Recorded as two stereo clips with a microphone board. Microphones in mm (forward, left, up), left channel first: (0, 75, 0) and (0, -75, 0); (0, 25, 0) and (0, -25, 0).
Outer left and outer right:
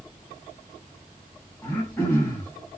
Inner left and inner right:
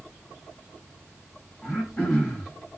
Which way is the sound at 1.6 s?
20° left (ahead or behind).